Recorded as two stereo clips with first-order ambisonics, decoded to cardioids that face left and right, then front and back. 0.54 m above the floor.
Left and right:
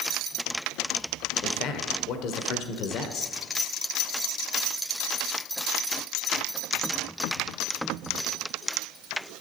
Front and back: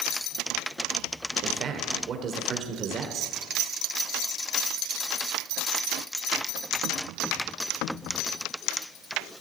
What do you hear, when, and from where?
1.4 s a man speaking: 125° left, 1.7 m